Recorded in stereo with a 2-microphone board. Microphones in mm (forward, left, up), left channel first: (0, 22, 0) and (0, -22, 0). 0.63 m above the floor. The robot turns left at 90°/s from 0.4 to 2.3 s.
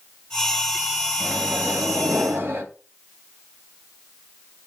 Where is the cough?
I don't hear a cough.